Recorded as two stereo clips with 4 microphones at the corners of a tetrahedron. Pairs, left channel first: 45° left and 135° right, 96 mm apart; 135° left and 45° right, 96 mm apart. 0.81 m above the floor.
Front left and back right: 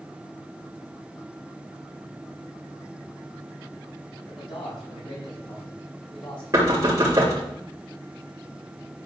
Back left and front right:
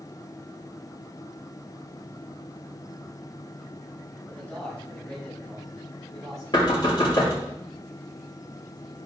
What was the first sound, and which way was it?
A man speaking, 60° left.